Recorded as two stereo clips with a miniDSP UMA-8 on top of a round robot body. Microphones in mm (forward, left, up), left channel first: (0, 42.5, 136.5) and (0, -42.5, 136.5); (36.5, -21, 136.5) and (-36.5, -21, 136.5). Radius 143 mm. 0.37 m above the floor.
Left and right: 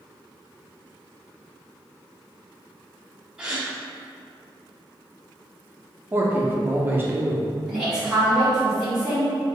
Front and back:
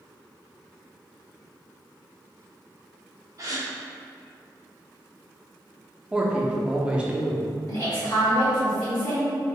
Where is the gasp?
165° right, 1.1 m.